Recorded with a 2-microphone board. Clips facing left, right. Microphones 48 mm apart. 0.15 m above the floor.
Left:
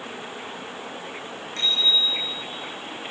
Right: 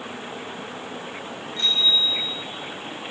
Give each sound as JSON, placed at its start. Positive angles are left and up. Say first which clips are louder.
{"t": 1.6, "sound": "a bicycle bell", "louder": "right 1 dB", "side_deg": 75, "distance_m": 9.0}